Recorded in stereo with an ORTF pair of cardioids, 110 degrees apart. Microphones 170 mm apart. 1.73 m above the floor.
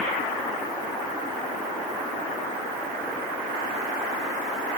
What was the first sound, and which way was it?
Only background noise.